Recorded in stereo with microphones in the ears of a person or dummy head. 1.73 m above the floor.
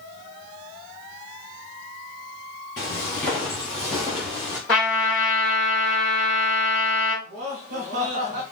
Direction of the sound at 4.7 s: 5° left (ahead or behind).